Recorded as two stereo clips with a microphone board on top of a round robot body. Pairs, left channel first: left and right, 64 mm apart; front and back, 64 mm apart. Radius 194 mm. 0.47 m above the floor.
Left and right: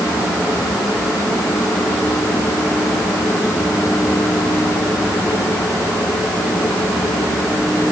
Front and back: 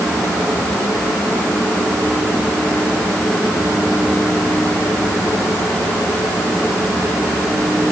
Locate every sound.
Only background noise.